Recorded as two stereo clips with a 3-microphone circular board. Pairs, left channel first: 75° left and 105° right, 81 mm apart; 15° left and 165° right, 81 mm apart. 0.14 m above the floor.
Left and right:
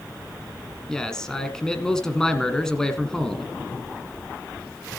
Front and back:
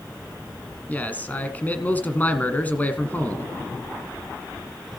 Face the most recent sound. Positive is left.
turn(degrees=5)